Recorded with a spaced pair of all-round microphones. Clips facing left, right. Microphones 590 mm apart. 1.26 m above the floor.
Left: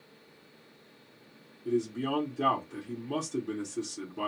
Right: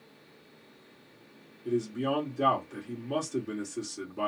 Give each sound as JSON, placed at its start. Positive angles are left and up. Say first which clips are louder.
{"t": 1.6, "sound": "a man speaking", "louder": "even", "side_deg": 5, "distance_m": 0.9}